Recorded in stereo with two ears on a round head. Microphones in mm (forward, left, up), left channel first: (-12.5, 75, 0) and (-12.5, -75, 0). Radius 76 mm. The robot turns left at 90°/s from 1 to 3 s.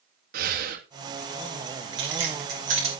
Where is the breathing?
60° right (ahead or behind), 1.5 m.